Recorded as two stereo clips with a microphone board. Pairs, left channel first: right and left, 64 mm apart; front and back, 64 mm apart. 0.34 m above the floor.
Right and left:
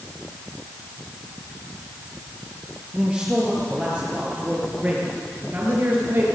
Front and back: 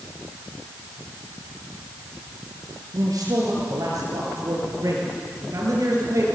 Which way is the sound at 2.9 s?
160° left.